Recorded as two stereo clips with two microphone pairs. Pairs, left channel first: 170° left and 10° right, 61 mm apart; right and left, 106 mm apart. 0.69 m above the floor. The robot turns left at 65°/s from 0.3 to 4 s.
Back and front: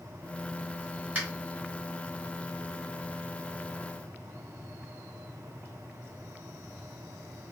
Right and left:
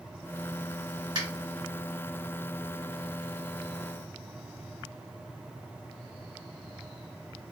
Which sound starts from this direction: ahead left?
A finger snap, at 1.1 s.